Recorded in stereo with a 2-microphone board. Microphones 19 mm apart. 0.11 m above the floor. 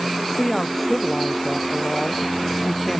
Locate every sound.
0.4 s a woman speaking: 10° left (ahead or behind)